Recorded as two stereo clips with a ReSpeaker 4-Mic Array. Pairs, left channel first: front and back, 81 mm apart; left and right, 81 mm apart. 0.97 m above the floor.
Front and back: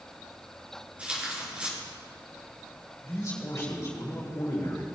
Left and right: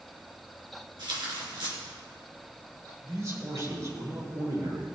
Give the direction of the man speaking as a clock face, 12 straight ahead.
2 o'clock.